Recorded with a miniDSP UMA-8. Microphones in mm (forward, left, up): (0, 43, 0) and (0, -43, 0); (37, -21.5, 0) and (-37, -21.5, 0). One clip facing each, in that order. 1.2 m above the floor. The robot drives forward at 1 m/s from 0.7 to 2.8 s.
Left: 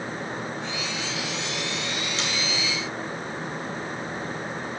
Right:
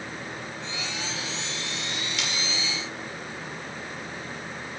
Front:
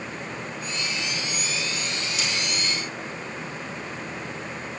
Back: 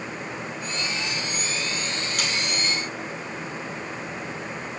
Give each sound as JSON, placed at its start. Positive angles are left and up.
{"t": 2.2, "sound": "sawing", "azimuth_deg": 150, "distance_m": 5.0}